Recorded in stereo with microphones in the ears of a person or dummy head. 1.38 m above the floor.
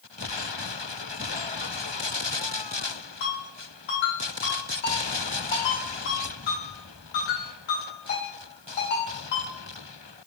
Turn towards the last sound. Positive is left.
turn(degrees=60)  # may be behind; listen again after turning